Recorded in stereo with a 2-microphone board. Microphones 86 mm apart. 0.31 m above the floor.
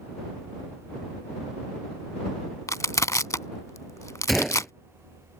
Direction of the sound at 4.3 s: Centre (ahead or behind).